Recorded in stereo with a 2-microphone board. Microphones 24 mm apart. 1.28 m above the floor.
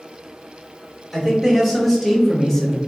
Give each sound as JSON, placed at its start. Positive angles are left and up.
{"t": 1.1, "sound": "a man speaking", "side_deg": -5, "distance_m": 1.8}